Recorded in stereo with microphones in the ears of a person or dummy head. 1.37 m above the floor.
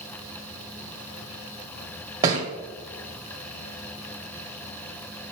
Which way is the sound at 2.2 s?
15° right (ahead or behind).